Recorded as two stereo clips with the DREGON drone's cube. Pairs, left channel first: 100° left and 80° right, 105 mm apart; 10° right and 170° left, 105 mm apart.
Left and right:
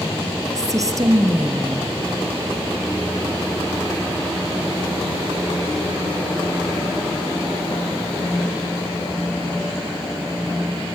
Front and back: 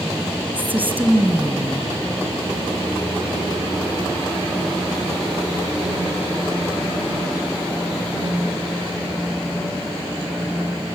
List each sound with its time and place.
0.6 s a woman speaking: 120° right, 1.6 m